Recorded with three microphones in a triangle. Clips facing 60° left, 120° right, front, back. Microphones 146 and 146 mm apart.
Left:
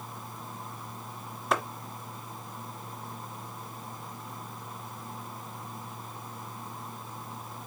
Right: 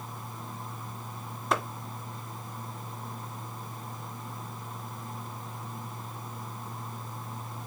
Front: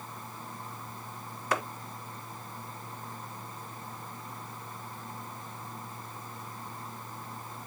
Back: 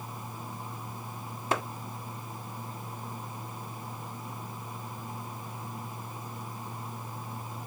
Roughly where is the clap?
Behind left.